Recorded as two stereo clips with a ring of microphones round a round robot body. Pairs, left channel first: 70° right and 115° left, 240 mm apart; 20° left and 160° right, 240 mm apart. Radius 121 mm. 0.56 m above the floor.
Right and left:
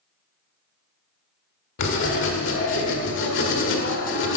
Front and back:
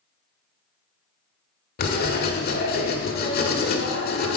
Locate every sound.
1.8 s writing: 30° right, 1.4 m